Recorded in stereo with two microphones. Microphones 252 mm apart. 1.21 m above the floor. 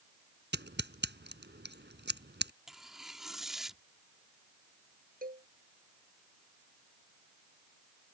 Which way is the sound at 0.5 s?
45° right (ahead or behind).